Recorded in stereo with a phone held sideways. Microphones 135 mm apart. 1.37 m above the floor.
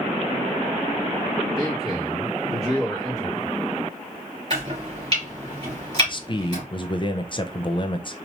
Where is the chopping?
45° right (ahead or behind), 3 m.